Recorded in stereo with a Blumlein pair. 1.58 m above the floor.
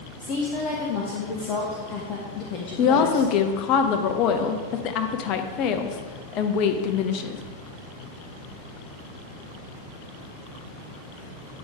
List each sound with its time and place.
0.2 s a woman speaking: 35° left, 0.8 m
2.8 s a woman speaking: 35° left, 0.5 m